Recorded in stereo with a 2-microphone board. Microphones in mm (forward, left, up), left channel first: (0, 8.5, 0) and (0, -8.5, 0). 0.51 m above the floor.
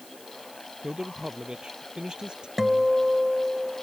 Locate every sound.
0.8 s a man speaking: 55° right (ahead or behind)
2.6 s a guitar: 10° right (ahead or behind)